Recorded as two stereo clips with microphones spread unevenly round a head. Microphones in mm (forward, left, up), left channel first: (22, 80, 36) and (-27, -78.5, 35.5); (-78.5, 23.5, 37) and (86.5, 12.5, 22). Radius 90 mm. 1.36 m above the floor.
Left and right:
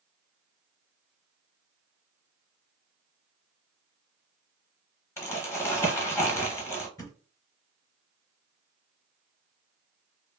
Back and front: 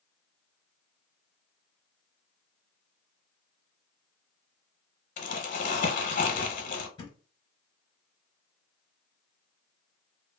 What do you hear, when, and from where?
5.2 s crumpling: 145° left, 0.8 m
7.0 s a thud: 135° left, 0.9 m